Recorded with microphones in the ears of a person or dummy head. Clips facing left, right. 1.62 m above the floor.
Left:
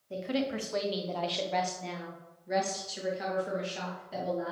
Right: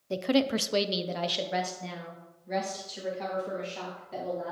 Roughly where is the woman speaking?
Right.